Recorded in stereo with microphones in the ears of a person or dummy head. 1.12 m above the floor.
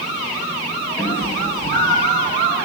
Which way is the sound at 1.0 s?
10° left (ahead or behind).